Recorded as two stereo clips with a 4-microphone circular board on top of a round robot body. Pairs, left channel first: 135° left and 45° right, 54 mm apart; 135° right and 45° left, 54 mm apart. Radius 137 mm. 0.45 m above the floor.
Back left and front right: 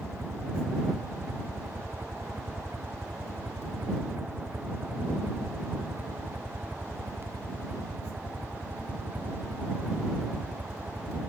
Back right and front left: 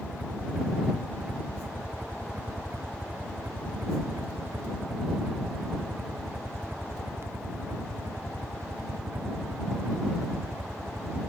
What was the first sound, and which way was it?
A helicopter, 15° right.